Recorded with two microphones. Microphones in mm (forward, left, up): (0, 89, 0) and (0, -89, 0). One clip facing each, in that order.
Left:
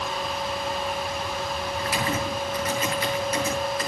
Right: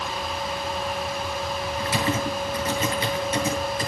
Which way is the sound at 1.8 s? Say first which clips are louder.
Right 3 dB; 25° right (ahead or behind).